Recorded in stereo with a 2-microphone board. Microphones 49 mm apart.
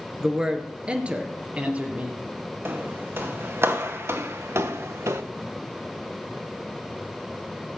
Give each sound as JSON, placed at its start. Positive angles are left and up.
{"t": 0.2, "sound": "a man speaking", "side_deg": -15, "distance_m": 1.9}
{"t": 2.6, "sound": "footsteps", "side_deg": -55, "distance_m": 2.5}